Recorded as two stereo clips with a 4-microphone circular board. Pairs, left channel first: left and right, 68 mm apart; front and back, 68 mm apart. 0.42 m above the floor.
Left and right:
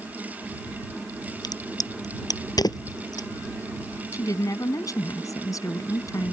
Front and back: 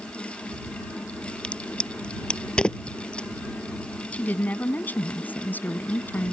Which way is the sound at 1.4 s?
75° left.